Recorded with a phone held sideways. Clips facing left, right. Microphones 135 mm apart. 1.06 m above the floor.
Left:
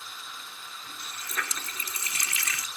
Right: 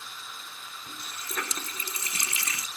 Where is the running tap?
25° right (ahead or behind).